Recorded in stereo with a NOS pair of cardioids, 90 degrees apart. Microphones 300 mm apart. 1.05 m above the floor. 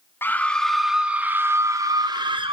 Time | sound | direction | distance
0.2 | a scream | 5° left | 2 m